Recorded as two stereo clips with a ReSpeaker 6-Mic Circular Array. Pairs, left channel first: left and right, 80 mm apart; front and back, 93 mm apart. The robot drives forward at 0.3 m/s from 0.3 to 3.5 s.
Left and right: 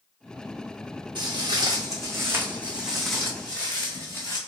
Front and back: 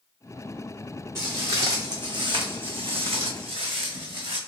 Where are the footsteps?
115° right, 1.7 m; by 4.4 s 145° left, 1.7 m.